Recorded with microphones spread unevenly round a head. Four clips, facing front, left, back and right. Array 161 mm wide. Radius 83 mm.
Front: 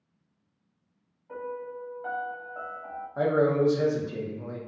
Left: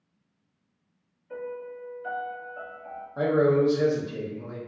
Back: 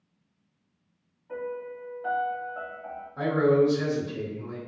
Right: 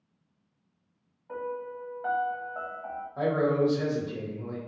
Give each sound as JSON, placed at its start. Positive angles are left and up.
{"t": 1.3, "sound": "a piano", "azimuth_deg": -85, "distance_m": 1.1}
{"t": 3.2, "sound": "a man speaking", "azimuth_deg": 30, "distance_m": 0.8}